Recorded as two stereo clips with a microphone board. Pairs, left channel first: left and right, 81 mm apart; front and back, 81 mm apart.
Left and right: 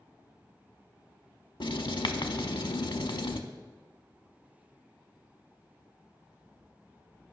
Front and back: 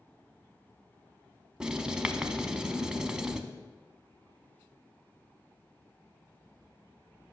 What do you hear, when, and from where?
1.6 s writing: 100° left, 0.6 m